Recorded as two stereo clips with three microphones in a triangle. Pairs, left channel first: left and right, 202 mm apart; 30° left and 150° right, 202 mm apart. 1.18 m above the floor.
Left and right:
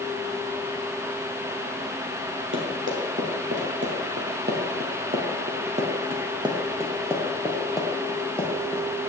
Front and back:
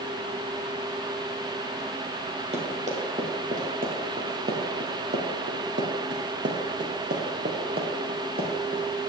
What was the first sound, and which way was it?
Running footsteps, 95° right.